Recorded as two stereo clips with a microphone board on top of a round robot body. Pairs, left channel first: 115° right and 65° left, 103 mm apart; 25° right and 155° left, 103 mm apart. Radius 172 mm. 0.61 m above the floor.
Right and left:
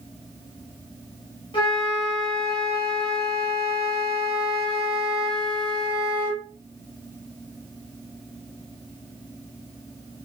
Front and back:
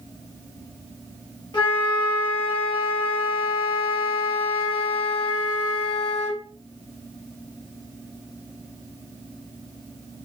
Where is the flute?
70° right, 0.9 m.